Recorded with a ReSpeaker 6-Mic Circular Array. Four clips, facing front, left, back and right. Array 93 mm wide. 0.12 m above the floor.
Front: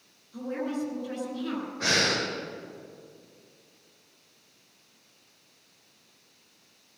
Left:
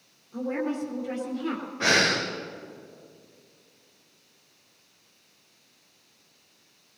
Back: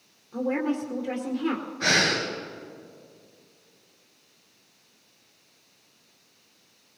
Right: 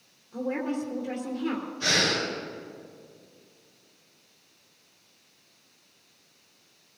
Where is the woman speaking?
175° left, 2 m.